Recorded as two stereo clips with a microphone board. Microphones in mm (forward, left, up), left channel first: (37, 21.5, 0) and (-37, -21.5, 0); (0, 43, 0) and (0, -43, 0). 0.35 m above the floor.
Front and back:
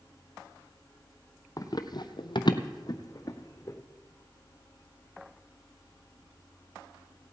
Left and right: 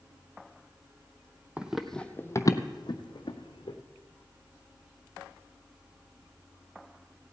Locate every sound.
1.6 s running footsteps: 15° right, 0.7 m; by 3.8 s 85° left, 1.3 m